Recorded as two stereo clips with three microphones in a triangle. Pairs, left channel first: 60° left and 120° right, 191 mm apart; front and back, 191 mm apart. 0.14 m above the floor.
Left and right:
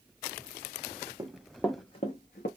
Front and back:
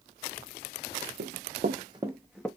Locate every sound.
1.2 s running footsteps: 170° left, 0.6 m; by 2.5 s 85° left, 0.8 m